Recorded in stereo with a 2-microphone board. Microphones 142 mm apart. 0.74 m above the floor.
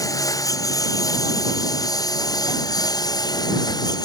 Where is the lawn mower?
25° left (ahead or behind).